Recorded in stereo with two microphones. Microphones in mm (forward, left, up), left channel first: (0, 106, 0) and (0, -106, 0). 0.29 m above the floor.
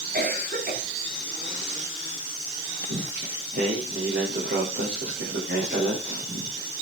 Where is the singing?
55° right (ahead or behind), 8 m.